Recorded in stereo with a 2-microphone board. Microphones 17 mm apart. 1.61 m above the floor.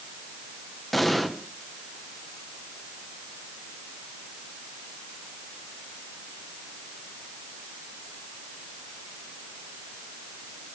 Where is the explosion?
15° left (ahead or behind), 1.7 m.